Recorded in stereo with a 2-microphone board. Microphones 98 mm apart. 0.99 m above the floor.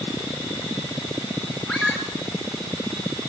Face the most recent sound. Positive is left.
turn(degrees=-15)  # may be behind; listen again after turning